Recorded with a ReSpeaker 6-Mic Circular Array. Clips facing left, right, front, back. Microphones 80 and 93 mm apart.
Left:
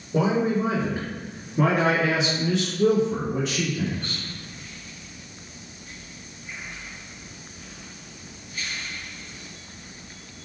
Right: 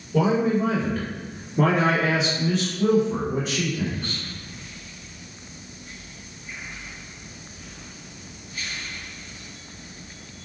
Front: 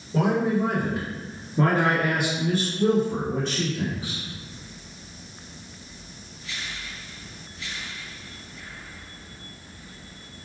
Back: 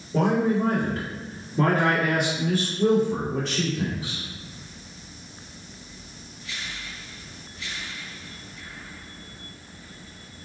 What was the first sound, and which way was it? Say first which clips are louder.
A man speaking: right 1 dB, back 1 dB; 85° left.